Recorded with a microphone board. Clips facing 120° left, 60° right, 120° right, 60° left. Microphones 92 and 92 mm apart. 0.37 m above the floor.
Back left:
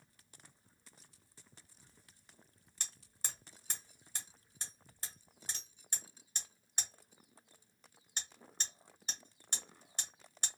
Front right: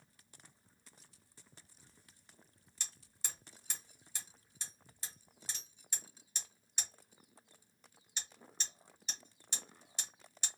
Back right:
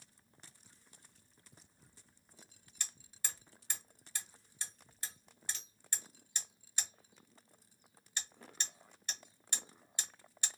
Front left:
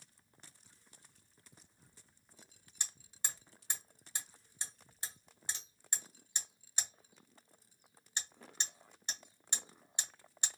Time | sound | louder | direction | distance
2.8 | hammering | back left 1 dB, front left 1 dB | 120° left | 1.3 m